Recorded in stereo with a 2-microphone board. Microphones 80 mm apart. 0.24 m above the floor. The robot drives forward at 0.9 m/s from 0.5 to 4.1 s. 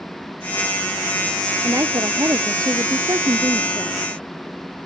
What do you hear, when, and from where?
1.6 s a woman speaking: 45° right (ahead or behind); by 4.0 s 60° right (ahead or behind)